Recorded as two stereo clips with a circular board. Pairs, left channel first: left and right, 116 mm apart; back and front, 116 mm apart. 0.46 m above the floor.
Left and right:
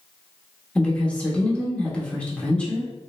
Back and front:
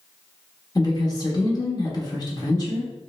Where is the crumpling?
I don't hear crumpling.